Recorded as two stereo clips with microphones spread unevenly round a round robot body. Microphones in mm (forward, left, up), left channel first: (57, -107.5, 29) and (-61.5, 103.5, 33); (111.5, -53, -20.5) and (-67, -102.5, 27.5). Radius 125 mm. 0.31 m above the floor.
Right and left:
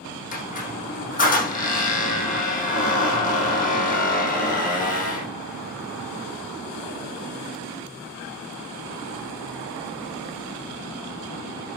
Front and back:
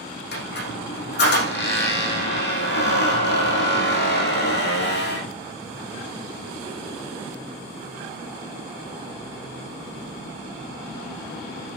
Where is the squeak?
5° right, 7 m.